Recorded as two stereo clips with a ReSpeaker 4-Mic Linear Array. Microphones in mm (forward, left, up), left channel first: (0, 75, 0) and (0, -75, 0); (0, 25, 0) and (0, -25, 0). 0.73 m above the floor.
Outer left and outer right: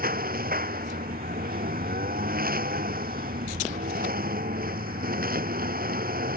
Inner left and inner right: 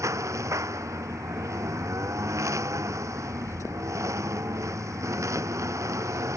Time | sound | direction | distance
0.0 | a lawn mower | 80° right | ?